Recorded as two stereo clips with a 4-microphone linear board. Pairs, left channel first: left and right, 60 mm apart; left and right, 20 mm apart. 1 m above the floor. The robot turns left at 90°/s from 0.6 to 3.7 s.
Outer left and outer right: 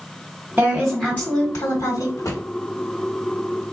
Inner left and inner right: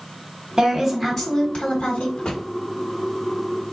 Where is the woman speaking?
155° right, 1.2 m; by 2.1 s 70° left, 1.2 m.